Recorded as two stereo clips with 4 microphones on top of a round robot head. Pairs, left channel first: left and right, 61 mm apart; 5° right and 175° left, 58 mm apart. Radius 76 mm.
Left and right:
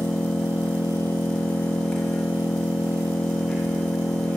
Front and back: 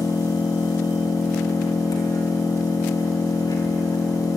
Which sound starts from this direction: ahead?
An engine running, at 0.0 s.